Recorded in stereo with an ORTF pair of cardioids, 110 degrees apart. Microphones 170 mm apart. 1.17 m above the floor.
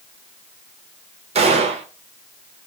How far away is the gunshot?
About 0.9 m.